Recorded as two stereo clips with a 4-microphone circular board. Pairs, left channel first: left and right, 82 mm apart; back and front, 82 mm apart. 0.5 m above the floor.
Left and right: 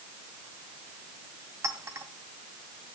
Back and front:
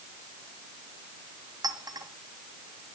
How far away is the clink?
About 2 m.